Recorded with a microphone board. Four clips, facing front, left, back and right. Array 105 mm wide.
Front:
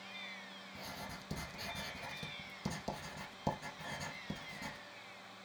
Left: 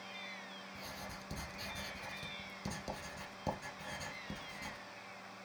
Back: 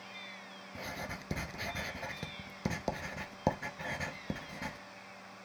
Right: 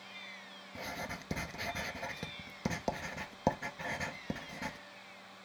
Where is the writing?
135° right, 0.9 m.